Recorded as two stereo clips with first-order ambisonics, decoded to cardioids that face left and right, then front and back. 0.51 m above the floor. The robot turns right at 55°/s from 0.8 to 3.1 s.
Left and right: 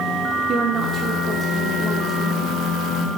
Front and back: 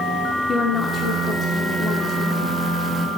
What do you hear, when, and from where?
0.5 s a woman speaking: 50° right, 0.8 m; by 2.6 s 50° left, 0.8 m